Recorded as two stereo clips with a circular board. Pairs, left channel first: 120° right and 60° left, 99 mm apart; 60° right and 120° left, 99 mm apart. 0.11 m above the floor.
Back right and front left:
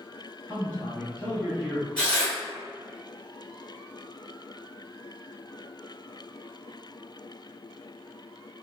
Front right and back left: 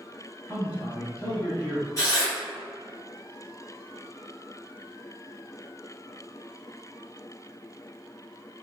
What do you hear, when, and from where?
0.5 s a man speaking: 75° right, 1.1 m
2.0 s tearing paper: 50° right, 1.9 m